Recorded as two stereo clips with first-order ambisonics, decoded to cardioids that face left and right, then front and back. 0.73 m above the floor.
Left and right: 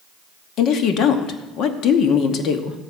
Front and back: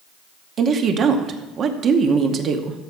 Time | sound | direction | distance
0.6 | a woman speaking | 130° left | 0.9 m